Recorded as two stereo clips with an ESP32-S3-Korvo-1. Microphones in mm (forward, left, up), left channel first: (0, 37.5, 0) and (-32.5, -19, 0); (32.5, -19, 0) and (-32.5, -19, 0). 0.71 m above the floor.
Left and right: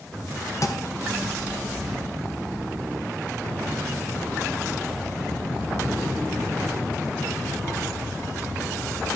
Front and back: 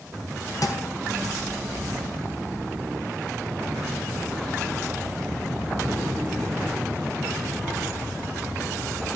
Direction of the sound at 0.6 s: 25° left.